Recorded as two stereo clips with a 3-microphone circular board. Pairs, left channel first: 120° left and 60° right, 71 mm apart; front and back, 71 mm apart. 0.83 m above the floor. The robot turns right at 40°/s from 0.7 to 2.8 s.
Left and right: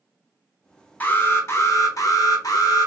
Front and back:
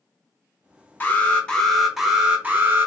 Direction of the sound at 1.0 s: 60° left.